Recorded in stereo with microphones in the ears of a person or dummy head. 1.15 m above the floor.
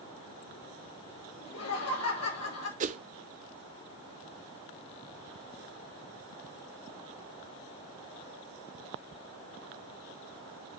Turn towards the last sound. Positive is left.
turn(degrees=-30)  # may be behind; listen again after turning